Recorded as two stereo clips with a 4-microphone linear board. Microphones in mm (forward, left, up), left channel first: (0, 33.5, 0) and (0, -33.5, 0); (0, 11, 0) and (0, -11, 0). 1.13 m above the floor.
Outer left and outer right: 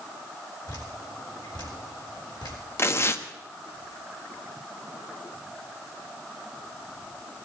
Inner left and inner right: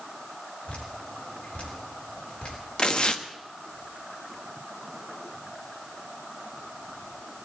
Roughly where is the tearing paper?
Left.